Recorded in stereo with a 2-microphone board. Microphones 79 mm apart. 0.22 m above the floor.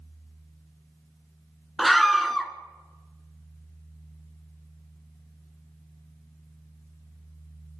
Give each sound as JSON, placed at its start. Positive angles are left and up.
{"t": 1.8, "sound": "a scream", "side_deg": 0, "distance_m": 2.0}